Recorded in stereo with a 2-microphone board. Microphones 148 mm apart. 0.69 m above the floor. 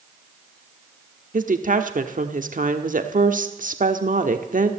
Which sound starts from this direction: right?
A woman speaking, at 1.3 s.